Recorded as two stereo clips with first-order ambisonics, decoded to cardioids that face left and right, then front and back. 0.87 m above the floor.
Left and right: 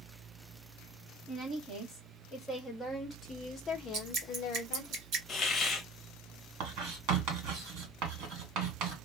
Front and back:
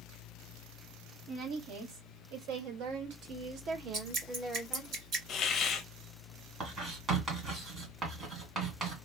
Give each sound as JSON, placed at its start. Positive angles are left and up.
{"t": 1.3, "sound": "a woman speaking", "azimuth_deg": -170, "distance_m": 1.9}
{"t": 3.9, "sound": "dripping", "azimuth_deg": -130, "distance_m": 2.5}
{"t": 5.3, "sound": "a hiss", "azimuth_deg": 30, "distance_m": 0.6}
{"t": 6.6, "sound": "writing", "azimuth_deg": -115, "distance_m": 1.6}